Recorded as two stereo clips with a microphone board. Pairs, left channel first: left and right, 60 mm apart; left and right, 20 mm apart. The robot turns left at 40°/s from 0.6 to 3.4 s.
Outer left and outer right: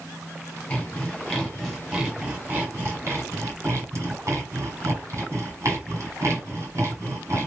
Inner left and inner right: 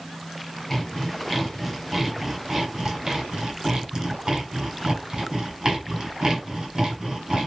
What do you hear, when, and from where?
0.7 s sawing: 25° left (ahead or behind), 1.6 m; by 7.5 s 45° right (ahead or behind), 1.6 m